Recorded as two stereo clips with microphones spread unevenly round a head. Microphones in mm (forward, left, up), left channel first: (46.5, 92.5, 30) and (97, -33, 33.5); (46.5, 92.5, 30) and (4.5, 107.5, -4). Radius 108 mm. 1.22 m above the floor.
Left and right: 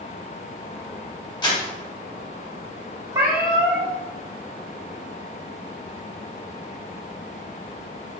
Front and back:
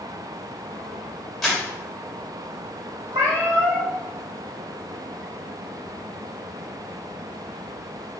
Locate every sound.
1.4 s crumpling: 60° left, 3 m
3.1 s a cat meowing: 140° right, 1.0 m